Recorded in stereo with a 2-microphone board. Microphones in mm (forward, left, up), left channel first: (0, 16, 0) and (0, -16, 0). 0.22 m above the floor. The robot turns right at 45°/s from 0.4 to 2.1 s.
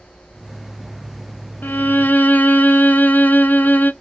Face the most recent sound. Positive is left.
turn(degrees=65)  # may be behind; listen again after turning